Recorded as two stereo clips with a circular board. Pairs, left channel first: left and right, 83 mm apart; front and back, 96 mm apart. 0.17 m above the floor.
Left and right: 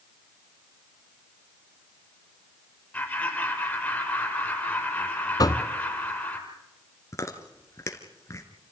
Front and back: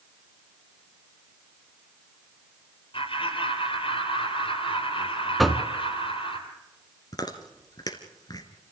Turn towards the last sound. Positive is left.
turn(degrees=40)